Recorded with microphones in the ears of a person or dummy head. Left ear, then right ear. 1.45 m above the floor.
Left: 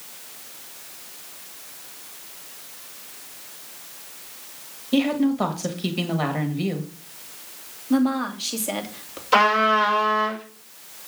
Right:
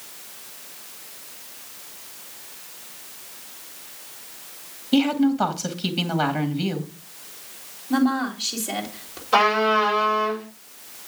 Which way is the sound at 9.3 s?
80° left.